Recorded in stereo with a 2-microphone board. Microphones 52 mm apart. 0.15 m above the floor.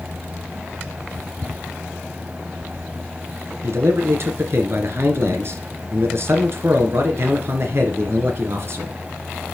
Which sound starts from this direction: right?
A man speaking, at 3.6 s.